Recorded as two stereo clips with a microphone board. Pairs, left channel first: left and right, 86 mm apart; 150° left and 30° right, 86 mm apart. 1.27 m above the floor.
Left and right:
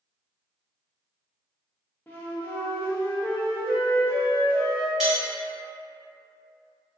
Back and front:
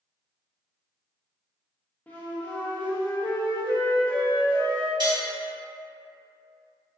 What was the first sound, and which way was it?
A flute, 110° left.